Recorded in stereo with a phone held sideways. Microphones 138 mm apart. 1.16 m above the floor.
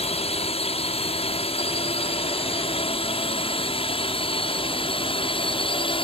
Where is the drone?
50° left (ahead or behind); by 6.0 s 40° left (ahead or behind).